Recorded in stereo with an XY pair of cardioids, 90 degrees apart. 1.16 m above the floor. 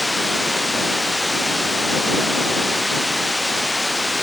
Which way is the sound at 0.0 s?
10° left.